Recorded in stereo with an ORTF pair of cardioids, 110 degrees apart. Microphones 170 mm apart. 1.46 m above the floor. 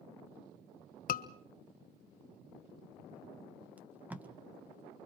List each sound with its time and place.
1.1 s a scream: 55° left, 1.4 m
3.8 s tape being pulled: 10° right, 1.6 m